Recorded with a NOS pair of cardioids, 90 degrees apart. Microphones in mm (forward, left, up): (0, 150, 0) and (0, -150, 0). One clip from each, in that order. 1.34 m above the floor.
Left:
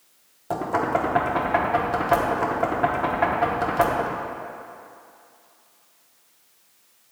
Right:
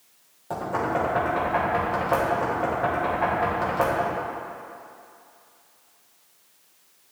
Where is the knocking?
25° left, 1.0 m.